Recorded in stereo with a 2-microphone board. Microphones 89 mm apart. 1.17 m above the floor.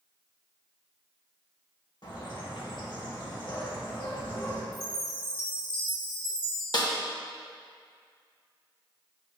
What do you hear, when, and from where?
2.0 s a bird: 55° left (ahead or behind), 1.6 m
4.7 s a chime: 70° left (ahead or behind), 2.5 m
6.7 s a snare drum: 55° left (ahead or behind), 1.0 m